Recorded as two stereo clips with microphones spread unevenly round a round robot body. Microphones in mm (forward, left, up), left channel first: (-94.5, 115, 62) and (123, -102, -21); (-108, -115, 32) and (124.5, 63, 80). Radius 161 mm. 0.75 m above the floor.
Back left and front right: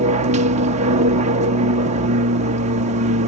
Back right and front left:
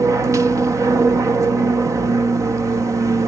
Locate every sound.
0.0 s an aircraft: 50° right